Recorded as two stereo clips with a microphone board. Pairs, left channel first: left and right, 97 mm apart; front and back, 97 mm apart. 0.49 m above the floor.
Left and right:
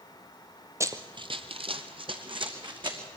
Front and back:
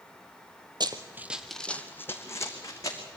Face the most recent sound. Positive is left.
turn(degrees=-55)